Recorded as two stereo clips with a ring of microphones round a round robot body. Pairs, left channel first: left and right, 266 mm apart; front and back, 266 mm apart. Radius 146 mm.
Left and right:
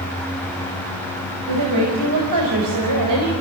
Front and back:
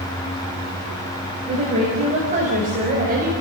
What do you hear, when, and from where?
1.5 s a woman speaking: 110° right, 5 m; by 3.3 s 120° right, 4 m